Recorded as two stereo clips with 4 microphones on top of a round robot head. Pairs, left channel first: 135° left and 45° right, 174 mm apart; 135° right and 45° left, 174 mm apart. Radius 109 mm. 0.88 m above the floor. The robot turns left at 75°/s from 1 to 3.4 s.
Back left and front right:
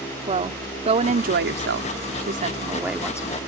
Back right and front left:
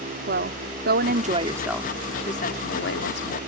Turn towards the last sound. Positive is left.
turn(degrees=-165)